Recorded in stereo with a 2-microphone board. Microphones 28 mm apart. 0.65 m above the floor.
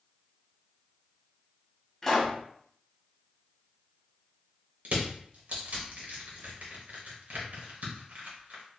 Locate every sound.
2.0 s a pop: 10° left (ahead or behind), 1.3 m
4.8 s crushing: 80° right, 1.3 m